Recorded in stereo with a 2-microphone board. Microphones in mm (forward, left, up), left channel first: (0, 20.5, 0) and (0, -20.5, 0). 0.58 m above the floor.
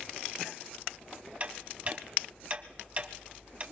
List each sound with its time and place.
1.4 s ticking: 35° right (ahead or behind), 0.9 m